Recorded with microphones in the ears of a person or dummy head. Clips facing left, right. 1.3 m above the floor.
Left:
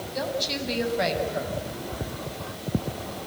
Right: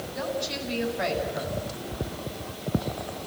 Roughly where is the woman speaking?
Left.